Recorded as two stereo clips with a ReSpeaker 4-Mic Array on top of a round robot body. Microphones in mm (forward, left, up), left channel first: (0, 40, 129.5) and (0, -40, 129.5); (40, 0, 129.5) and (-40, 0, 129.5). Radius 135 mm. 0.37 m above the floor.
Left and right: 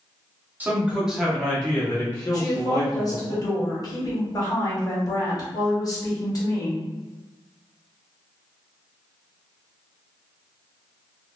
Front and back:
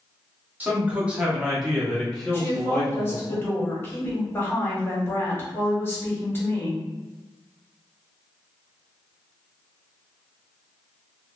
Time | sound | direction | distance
0.6 | a man speaking | 135° right | 1.2 m
2.3 | a woman speaking | 55° left | 1.4 m